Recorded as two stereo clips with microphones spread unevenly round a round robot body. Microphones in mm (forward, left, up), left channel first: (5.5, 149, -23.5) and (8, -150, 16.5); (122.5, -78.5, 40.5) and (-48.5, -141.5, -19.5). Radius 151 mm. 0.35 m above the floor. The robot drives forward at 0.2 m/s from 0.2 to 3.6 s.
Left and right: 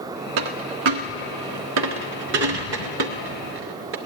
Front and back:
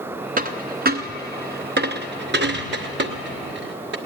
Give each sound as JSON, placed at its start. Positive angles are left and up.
{"t": 0.4, "sound": "a dropped coin", "azimuth_deg": -110, "distance_m": 0.9}